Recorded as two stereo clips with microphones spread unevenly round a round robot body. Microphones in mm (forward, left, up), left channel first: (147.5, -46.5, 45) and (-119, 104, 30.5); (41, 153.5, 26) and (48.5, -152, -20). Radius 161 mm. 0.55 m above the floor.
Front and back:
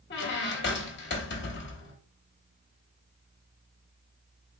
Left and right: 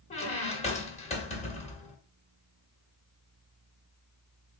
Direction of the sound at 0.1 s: 20° left.